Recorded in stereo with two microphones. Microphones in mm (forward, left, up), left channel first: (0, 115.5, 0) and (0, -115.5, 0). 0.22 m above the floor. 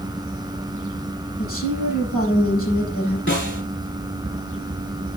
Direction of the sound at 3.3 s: 55° left (ahead or behind).